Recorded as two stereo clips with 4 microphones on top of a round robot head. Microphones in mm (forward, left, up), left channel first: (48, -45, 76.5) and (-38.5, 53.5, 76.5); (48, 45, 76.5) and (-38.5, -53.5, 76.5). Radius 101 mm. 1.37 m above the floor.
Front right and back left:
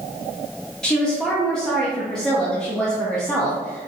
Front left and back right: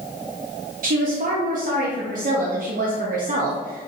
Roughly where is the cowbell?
I don't hear a cowbell.